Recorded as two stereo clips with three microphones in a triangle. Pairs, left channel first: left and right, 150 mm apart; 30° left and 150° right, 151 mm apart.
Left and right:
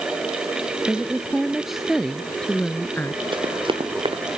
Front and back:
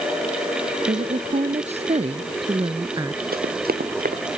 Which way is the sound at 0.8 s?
170° right.